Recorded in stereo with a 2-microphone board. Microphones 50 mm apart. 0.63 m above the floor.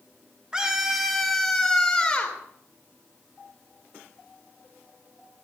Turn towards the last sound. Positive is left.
turn(degrees=25)  # may be behind; listen again after turning